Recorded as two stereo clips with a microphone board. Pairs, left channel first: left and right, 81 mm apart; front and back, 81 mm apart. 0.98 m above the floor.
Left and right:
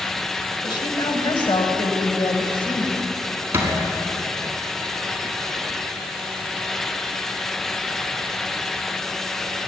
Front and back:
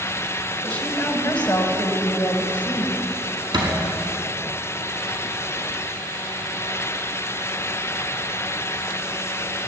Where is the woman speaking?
70° left, 4.5 m.